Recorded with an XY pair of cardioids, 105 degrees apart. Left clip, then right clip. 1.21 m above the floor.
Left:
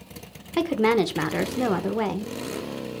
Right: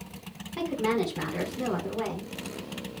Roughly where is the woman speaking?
Left.